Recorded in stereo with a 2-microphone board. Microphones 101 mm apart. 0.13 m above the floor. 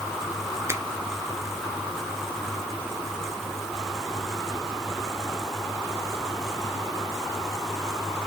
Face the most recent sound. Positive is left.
turn(degrees=-25)  # may be behind; listen again after turning